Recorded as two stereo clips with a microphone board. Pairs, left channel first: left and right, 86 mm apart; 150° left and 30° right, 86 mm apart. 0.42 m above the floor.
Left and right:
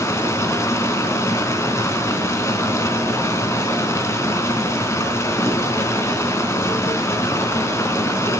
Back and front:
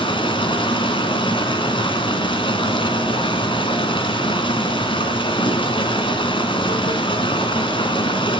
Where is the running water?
145° left, 3 m.